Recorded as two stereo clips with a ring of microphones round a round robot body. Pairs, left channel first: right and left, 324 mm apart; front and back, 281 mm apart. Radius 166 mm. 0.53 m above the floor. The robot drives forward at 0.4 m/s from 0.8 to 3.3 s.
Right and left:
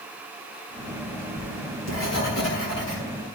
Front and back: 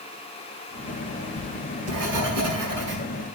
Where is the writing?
140° right, 5.5 m; by 3.3 s 145° right, 6 m.